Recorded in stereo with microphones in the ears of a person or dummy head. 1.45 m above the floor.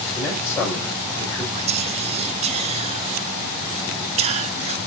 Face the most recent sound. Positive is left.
turn(degrees=-35)  # may be behind; listen again after turning